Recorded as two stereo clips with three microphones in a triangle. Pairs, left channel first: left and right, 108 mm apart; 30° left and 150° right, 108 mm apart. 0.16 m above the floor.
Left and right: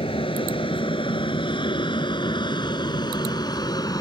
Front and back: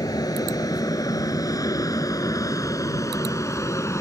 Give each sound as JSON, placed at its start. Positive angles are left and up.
{"t": 0.0, "sound": "an aircraft", "azimuth_deg": 75}